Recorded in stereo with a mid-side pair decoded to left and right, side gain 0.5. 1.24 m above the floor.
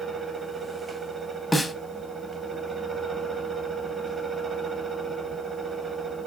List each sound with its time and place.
0.0 s a fan: 30° right, 0.8 m
1.5 s a snare drum: 5° left, 0.6 m